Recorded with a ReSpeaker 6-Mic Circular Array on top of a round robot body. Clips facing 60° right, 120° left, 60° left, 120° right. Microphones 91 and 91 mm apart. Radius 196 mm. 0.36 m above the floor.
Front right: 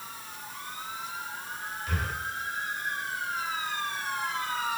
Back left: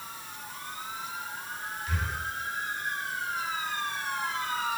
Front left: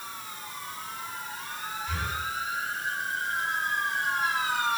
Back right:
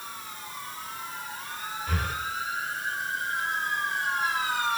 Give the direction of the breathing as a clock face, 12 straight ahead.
3 o'clock.